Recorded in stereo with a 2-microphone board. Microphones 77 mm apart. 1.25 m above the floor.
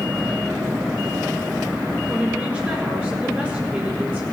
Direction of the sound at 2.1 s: 25° right (ahead or behind).